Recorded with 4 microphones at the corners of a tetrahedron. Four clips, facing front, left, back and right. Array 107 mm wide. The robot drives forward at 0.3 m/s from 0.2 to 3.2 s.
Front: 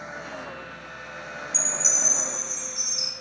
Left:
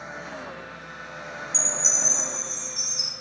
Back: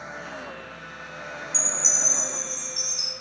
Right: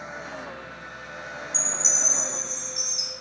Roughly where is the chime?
Right.